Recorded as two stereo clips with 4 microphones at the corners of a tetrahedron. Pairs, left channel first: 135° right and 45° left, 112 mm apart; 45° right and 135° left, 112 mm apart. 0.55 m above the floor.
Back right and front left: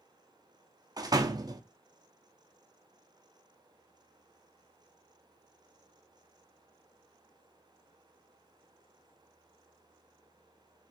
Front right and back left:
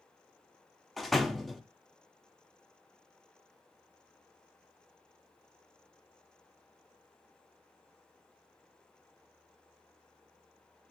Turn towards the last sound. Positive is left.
turn(degrees=45)